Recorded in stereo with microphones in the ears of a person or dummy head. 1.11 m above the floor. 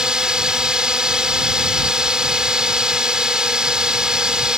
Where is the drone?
10° right (ahead or behind).